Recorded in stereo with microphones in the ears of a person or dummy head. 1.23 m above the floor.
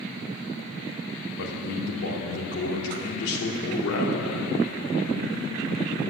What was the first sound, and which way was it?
A man speaking, 60° left (ahead or behind).